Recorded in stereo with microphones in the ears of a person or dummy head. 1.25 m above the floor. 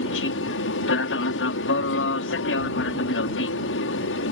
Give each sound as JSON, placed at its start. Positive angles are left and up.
{"t": 0.0, "sound": "an aircraft", "side_deg": 65}